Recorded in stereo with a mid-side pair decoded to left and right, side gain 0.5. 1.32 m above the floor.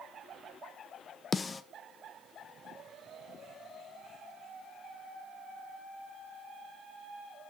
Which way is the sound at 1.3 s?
30° left.